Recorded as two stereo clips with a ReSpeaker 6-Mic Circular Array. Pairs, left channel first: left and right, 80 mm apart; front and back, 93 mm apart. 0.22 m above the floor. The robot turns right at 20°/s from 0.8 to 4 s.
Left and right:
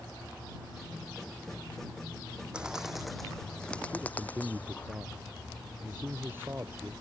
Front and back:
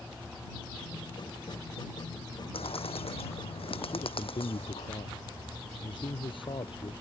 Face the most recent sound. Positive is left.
turn(degrees=-25)